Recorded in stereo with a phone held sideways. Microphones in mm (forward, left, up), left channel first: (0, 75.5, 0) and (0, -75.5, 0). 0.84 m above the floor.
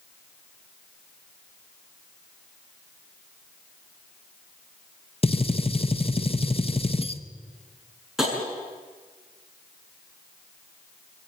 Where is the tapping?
5° right (ahead or behind), 7.5 m.